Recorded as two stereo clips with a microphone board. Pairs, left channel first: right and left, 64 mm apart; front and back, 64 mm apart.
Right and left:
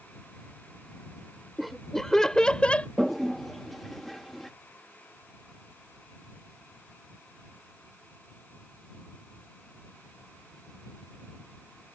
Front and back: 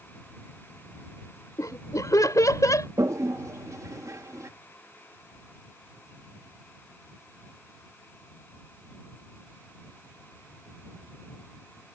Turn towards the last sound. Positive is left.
turn(degrees=180)